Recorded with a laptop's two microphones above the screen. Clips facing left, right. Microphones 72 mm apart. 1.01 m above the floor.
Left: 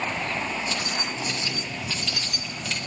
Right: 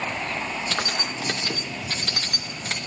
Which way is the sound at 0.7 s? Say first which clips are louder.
Right 1 dB; 65° right (ahead or behind).